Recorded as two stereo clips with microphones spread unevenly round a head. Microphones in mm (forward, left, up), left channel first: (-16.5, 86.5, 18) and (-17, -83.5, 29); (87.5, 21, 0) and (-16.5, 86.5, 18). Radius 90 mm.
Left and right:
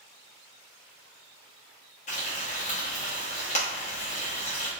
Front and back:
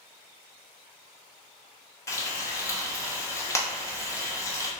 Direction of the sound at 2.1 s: 35° left.